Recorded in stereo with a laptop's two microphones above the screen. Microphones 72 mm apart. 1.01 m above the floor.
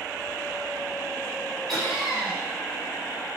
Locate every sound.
1.7 s laughter: 10° left (ahead or behind), 0.9 m